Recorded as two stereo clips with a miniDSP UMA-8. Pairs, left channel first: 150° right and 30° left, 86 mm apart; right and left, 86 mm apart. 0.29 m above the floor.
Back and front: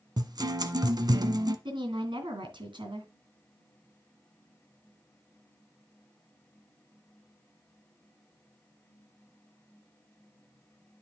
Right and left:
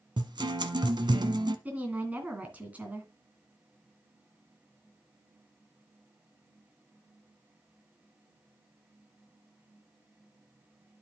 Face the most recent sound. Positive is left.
turn(degrees=20)